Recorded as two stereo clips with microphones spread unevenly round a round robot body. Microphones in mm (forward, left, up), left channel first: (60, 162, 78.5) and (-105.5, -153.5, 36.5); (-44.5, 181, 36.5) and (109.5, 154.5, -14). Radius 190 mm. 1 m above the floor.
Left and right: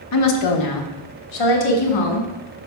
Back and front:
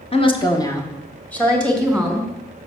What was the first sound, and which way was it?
A woman speaking, 110° left.